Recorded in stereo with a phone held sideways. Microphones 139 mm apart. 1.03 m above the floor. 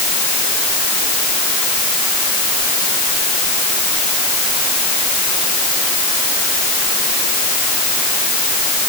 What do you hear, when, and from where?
Only background noise.